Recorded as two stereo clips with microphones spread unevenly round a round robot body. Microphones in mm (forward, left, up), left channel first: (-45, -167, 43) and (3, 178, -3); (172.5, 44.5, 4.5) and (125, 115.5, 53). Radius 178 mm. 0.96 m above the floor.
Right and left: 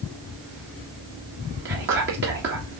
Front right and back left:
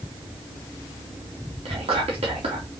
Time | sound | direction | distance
1.6 | whispering | 135° left | 1.9 m